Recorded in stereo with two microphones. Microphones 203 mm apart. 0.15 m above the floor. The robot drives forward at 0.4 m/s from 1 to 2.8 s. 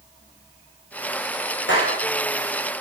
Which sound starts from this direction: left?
A clap, at 1.7 s.